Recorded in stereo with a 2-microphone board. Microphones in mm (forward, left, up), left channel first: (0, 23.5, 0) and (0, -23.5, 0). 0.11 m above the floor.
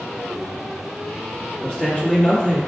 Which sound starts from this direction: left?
A man speaking, at 1.6 s.